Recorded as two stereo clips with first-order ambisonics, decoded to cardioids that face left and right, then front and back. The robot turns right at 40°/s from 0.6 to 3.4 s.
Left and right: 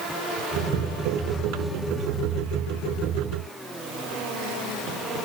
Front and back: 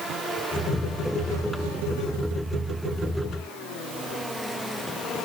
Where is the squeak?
I don't hear a squeak.